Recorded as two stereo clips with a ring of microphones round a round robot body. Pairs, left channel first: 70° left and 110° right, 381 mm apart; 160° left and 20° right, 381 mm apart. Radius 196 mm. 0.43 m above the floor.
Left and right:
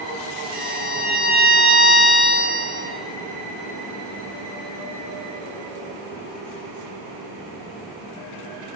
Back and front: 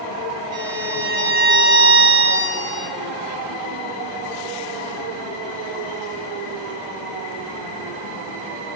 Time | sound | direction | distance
0.5 | a violin | 5° right | 4.5 m